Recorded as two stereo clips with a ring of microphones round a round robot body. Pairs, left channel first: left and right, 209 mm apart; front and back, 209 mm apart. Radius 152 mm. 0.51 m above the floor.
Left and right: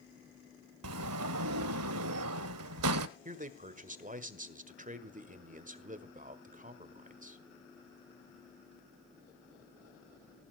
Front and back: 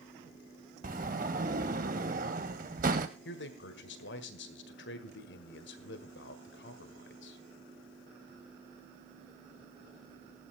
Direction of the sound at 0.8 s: 115° right.